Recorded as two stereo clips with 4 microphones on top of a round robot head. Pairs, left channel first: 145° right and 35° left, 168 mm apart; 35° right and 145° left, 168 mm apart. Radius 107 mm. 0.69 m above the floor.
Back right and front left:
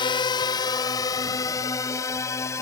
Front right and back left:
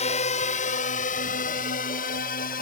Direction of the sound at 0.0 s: 85° right.